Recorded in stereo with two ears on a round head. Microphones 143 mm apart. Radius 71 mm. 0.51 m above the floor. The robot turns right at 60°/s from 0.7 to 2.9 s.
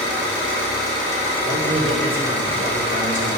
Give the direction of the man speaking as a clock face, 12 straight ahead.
4 o'clock.